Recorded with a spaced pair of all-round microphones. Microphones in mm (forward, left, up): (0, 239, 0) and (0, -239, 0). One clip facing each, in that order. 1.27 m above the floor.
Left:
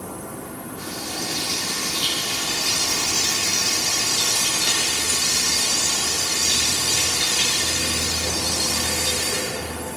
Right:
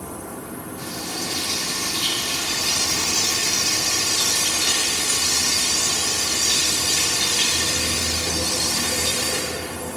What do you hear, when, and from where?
0.8 s frying: 25° right (ahead or behind), 2.5 m